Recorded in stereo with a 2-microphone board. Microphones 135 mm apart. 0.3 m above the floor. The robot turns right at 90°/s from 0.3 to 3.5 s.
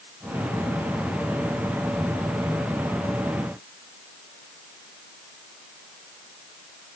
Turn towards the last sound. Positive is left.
No sound to turn to.